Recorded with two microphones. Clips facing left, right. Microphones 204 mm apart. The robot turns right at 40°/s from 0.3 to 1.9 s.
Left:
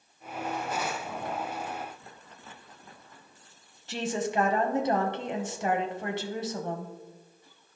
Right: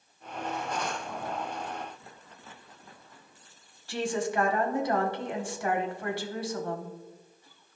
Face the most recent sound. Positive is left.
turn(degrees=20)  # may be behind; listen again after turning